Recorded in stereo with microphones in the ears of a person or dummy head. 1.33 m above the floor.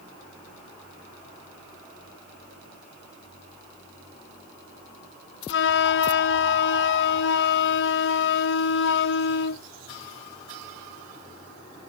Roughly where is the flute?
Left.